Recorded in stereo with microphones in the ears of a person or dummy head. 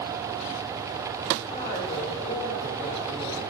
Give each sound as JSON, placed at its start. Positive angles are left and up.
{"t": 1.5, "sound": "a woman speaking", "side_deg": 35, "distance_m": 3.0}